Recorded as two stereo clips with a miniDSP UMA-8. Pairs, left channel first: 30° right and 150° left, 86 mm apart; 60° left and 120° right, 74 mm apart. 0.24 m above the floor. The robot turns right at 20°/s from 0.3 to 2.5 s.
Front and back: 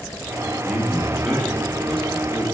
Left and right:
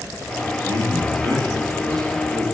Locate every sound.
0.6 s a man speaking: 125° right, 4.5 m; by 2.5 s 90° right, 4.5 m